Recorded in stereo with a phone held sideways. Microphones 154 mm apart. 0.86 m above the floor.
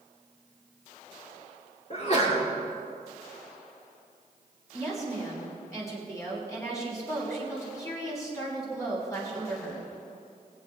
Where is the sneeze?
45° left (ahead or behind), 3 m.